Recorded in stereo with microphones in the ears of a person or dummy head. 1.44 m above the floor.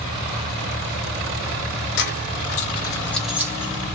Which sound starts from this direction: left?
Keys jangling, at 2.0 s.